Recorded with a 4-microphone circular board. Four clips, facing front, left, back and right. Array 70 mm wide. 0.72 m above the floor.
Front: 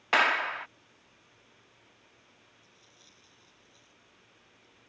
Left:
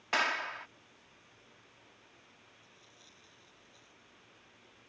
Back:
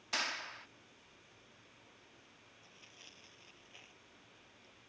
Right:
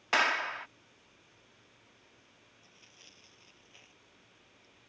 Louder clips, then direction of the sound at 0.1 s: Right 3 dB, front 15 dB; 10° right.